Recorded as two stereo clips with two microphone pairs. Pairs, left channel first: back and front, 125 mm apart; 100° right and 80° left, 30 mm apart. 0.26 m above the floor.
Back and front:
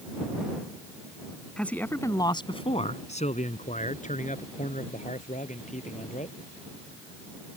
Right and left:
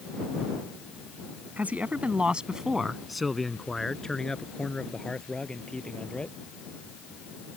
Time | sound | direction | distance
1.6 | a man speaking | 100° left | ?